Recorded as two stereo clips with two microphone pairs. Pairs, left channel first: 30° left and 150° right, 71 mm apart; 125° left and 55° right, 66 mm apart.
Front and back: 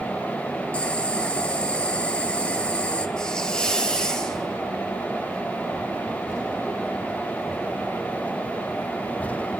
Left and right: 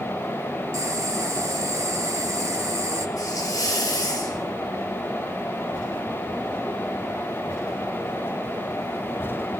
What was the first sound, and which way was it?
Boiling, 35° right.